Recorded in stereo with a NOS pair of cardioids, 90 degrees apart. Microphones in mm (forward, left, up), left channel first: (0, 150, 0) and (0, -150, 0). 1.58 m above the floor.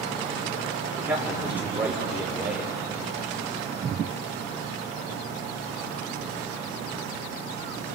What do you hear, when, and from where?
1.0 s a man speaking: 5° right, 6.5 m